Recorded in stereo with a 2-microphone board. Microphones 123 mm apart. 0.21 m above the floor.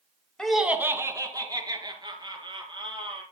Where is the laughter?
5° left (ahead or behind), 1.1 m; by 3.2 s 40° right (ahead or behind), 5 m.